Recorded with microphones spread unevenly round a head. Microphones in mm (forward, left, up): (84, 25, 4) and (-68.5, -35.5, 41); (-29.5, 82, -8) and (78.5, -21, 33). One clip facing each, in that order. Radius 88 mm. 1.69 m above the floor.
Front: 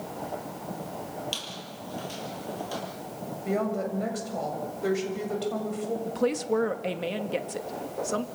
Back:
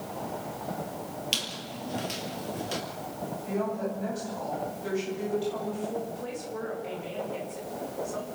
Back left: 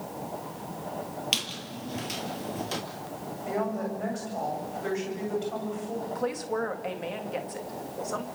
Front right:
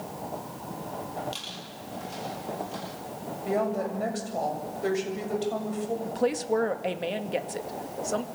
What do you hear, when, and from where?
1.3 s a squeak: 140° left, 4.5 m
3.5 s a woman speaking: straight ahead, 7.5 m
6.0 s a woman speaking: 5° left, 2 m